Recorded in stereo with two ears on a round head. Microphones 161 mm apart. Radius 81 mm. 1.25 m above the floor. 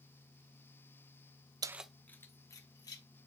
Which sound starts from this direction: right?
Keys jangling, at 1.6 s.